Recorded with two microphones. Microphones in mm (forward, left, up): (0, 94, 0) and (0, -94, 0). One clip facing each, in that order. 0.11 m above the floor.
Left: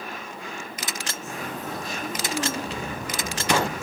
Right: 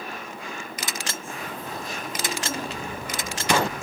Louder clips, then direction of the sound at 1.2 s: Left 2 dB; 75° left (ahead or behind).